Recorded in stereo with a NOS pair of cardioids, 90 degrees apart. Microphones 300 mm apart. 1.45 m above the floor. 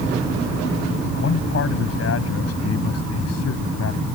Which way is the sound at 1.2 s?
45° left.